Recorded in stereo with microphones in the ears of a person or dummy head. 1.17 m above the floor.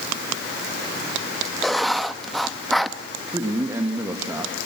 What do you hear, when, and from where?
1.6 s writing: 5° left (ahead or behind), 0.7 m
3.3 s a man speaking: 10° right (ahead or behind), 2 m